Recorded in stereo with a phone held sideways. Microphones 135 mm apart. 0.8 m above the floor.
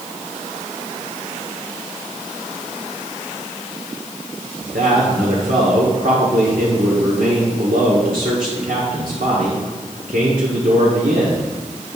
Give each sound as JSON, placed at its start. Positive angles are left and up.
{"t": 4.6, "sound": "a man speaking", "side_deg": -75, "distance_m": 1.9}